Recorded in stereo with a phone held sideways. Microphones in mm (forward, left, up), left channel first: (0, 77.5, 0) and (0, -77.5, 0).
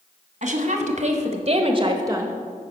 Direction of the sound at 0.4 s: 55° right (ahead or behind).